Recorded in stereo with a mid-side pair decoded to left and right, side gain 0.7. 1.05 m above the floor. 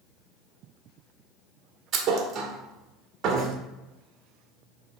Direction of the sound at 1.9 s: 45° right.